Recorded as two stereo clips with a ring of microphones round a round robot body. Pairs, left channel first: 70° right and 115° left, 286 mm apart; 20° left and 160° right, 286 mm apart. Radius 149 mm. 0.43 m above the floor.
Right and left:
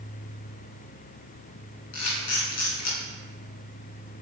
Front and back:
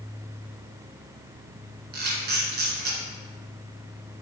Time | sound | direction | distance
1.9 | a camera shutter | 100° right | 2.5 m